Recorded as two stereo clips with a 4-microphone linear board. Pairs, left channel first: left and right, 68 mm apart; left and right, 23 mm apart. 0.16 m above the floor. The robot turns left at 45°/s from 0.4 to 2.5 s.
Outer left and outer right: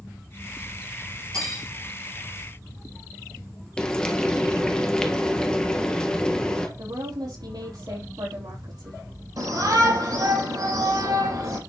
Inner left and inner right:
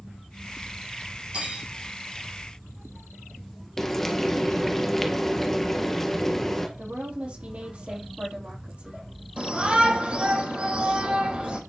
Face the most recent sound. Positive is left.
turn(degrees=-65)  # may be behind; listen again after turning